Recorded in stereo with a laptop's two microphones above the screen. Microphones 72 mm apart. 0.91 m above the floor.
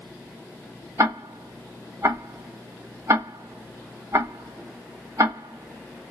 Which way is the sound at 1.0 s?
40° right (ahead or behind).